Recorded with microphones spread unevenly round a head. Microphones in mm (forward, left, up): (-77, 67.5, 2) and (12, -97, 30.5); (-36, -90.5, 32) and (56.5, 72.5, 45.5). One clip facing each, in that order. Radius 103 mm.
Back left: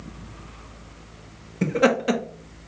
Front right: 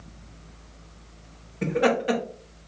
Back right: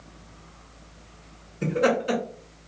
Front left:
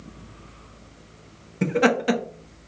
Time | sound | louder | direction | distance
1.6 | laughter | back left 2 dB, front left 2 dB | 70° left | 0.8 m